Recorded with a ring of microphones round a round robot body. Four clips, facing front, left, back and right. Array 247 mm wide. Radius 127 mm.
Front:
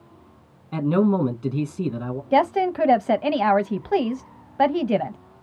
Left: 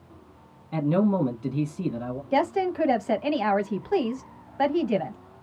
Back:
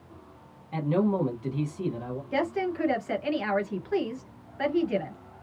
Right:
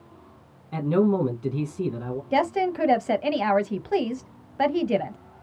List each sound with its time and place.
0.7 s a man speaking: straight ahead, 1.0 m
2.3 s a woman speaking: 10° right, 0.8 m